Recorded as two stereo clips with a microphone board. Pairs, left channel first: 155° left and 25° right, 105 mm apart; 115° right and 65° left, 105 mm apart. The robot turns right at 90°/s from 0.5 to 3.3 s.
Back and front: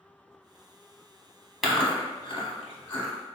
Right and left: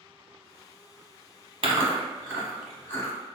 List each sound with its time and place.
1.6 s chewing: 65° left, 0.8 m; by 3.1 s 160° right, 0.8 m